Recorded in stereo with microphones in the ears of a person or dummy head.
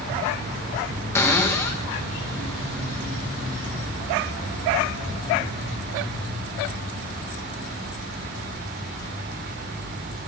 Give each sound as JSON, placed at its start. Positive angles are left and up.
{"t": 1.1, "sound": "a cupboard door", "side_deg": 15, "distance_m": 1.2}